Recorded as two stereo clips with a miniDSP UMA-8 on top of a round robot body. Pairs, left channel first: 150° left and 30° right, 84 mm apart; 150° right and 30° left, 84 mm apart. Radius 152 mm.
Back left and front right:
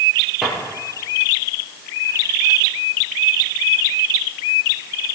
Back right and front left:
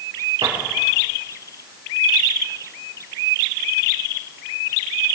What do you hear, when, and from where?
0.4 s a drawer: 60° left, 10 m